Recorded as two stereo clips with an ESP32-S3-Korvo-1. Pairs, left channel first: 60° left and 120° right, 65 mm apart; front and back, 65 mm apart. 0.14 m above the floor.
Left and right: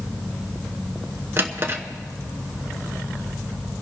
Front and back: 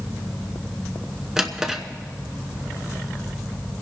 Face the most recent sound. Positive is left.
turn(degrees=-105)